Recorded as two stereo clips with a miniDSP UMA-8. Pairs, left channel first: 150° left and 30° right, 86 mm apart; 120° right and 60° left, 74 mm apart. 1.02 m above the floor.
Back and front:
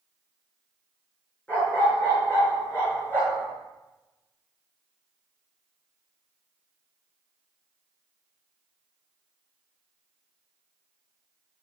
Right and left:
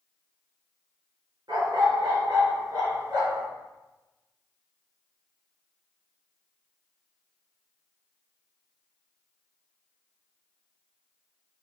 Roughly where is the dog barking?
Left.